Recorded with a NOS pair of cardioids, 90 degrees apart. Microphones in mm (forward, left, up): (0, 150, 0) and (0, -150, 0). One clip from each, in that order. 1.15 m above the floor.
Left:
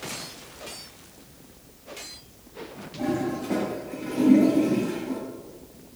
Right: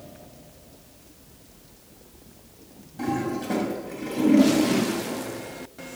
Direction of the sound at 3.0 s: 55° right.